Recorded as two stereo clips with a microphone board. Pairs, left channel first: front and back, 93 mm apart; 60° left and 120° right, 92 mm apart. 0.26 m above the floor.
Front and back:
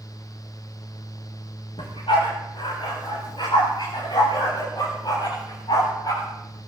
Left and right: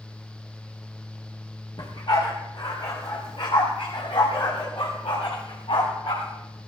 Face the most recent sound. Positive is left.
turn(degrees=45)